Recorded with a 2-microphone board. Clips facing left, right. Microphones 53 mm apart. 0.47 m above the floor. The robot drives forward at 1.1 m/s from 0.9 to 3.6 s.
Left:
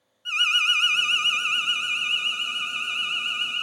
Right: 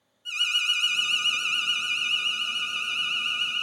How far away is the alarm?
About 0.8 m.